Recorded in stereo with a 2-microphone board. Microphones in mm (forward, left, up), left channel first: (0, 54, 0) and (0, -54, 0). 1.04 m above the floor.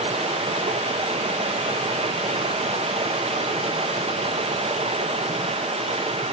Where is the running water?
65° right (ahead or behind), 0.9 m.